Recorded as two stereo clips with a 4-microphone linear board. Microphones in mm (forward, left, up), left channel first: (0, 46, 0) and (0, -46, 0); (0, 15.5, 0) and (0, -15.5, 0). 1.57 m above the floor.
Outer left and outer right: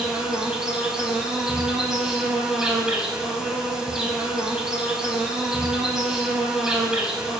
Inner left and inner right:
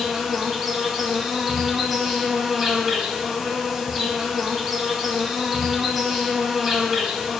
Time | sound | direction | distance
0.0 | an insect | 5° right (ahead or behind) | 1.7 m